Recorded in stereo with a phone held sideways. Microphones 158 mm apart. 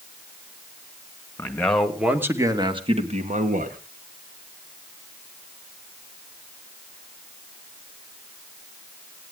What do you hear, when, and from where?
1.4 s a man speaking: 10° left (ahead or behind), 2.5 m; by 3.8 s 60° right (ahead or behind), 2.5 m